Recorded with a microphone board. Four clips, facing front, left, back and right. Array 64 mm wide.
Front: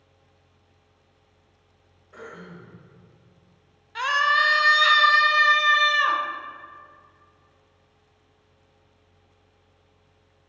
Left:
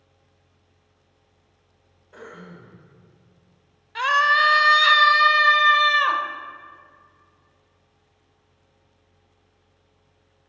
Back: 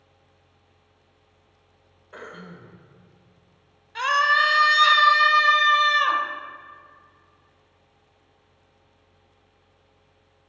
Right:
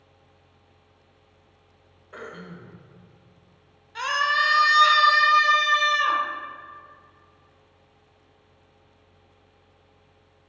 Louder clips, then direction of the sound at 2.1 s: Right 2 dB, back 1 dB; 125° right.